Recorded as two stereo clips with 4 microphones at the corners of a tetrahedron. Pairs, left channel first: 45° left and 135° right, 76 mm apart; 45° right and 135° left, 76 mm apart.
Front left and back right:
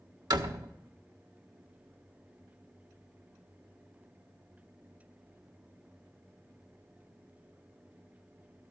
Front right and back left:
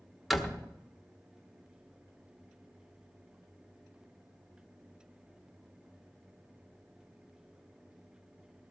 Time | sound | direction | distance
0.3 | a door slam | 135° right | 1.1 m